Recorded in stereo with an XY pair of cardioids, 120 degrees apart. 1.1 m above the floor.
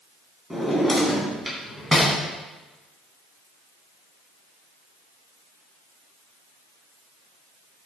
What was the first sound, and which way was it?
A drawer, straight ahead.